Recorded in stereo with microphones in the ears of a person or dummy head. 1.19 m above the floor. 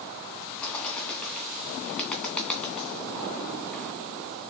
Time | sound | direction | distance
0.6 | a bird | 15° left (ahead or behind) | 2.5 m